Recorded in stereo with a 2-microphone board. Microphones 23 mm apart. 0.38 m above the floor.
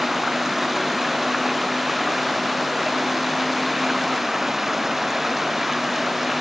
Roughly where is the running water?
Centre.